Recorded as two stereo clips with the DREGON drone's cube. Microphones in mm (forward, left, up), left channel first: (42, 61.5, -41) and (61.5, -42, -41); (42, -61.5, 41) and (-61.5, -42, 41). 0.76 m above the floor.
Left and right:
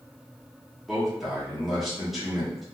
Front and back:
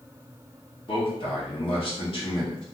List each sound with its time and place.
0.9 s a man speaking: 10° left, 1.3 m